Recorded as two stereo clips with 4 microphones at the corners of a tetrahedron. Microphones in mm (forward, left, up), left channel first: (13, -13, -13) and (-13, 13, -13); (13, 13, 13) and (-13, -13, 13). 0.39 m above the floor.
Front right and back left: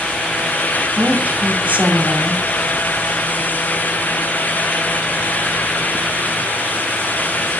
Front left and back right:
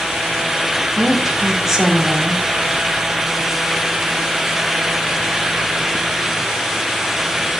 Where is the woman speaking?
145° left, 2 m.